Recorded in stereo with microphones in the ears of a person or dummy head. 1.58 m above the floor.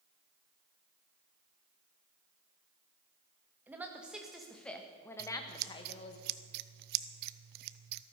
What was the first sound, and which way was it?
A woman speaking, 10° right (ahead or behind).